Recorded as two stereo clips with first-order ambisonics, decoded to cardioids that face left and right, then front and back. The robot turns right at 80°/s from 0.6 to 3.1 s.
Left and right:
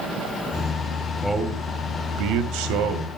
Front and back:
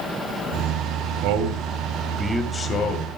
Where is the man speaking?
175° left, 2.5 m; by 3.1 s 35° right, 2.5 m.